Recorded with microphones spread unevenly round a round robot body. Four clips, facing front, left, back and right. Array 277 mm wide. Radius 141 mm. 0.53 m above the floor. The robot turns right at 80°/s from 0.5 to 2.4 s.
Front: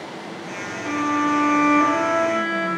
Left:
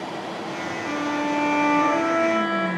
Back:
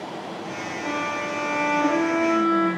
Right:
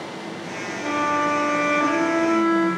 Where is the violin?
110° right, 3.5 m; by 2.7 s 15° left, 3.5 m.